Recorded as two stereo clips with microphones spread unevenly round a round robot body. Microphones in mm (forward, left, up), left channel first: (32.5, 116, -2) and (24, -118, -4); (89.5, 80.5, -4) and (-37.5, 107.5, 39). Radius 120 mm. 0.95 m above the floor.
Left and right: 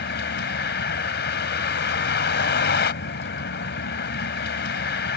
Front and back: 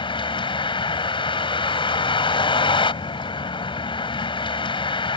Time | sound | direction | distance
0.0 | a vehicle | 45° left | ?